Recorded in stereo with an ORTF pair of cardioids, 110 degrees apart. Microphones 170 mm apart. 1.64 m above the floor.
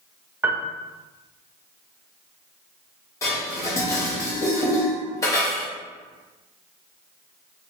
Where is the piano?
15° right, 0.7 m.